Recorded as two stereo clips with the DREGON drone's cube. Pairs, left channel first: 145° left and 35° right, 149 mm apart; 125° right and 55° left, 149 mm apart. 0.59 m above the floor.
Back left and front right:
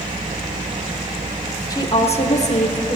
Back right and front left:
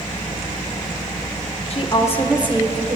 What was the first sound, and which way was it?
A woman speaking, 155° right.